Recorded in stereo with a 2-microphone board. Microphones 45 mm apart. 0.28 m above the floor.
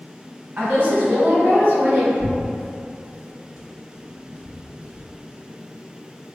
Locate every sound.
0.6 s a woman speaking: 45° right (ahead or behind), 1.5 m
2.2 s tearing paper: 25° right (ahead or behind), 1.0 m